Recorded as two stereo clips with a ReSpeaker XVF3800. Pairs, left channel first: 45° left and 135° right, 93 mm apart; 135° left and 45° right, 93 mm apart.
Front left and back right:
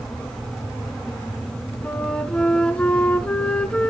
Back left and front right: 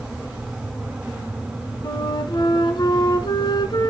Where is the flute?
115° left, 1.6 m.